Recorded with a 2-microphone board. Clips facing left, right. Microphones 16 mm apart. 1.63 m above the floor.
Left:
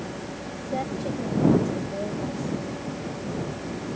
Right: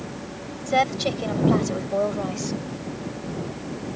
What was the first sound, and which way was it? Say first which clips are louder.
A woman speaking: right 8 dB; 70° right (ahead or behind).